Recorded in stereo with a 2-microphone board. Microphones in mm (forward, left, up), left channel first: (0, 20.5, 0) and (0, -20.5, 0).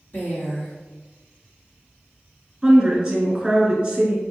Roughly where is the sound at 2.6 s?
Centre.